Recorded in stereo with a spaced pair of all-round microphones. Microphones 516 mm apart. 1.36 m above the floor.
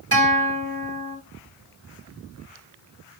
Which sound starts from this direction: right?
A guitar, at 0.1 s.